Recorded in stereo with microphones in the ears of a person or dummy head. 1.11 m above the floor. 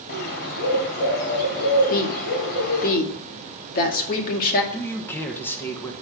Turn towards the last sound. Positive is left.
turn(degrees=10)  # may be behind; listen again after turning